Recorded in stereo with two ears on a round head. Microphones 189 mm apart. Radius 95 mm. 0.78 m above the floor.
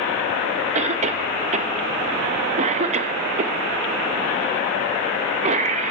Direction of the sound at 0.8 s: 35° right (ahead or behind).